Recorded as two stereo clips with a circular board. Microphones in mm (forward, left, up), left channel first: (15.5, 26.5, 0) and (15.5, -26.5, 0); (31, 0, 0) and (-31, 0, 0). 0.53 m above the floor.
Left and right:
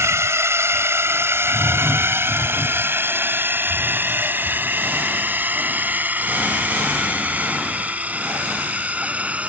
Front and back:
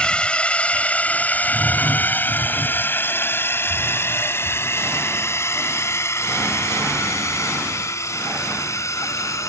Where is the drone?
70° right; by 9.5 s 25° right.